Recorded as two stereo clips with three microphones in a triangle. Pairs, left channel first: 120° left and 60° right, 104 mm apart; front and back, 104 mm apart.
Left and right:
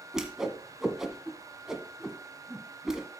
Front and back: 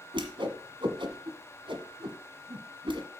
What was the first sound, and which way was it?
A whoosh, 145° right.